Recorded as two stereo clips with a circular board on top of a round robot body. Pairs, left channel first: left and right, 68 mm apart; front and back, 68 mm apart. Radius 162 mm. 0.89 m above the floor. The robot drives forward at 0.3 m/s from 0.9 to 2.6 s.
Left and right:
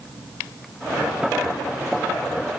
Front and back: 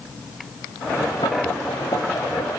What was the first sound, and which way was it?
Only background noise.